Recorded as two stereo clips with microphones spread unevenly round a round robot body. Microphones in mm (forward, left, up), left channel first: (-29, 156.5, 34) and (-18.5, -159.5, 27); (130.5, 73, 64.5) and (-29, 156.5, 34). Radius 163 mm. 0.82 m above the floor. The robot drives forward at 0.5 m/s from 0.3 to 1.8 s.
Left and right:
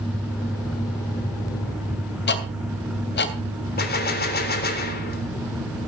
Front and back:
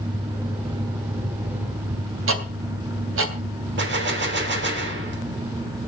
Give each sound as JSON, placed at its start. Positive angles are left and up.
{"t": 2.3, "sound": "ticking", "azimuth_deg": 150, "distance_m": 2.5}
{"t": 3.8, "sound": "a gunshot", "azimuth_deg": 155, "distance_m": 3.5}